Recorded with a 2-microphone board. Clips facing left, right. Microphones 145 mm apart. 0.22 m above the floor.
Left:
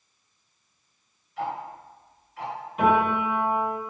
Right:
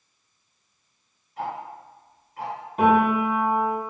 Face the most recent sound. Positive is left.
turn(degrees=-40)  # may be behind; listen again after turning